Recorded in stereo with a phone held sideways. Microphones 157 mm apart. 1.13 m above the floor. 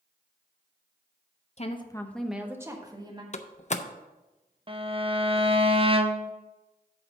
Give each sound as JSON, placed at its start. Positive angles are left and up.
{"t": 1.6, "sound": "a woman speaking", "side_deg": 45, "distance_m": 0.8}
{"t": 3.3, "sound": "a door slam", "side_deg": 50, "distance_m": 0.5}
{"t": 4.7, "sound": "a violin", "side_deg": -35, "distance_m": 0.6}